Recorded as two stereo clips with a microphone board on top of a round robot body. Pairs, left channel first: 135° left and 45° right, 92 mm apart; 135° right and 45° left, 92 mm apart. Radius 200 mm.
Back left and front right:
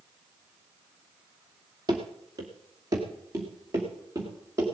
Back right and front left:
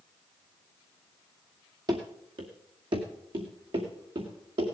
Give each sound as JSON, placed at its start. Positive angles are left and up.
{"t": 1.9, "sound": "running footsteps", "azimuth_deg": 0, "distance_m": 0.9}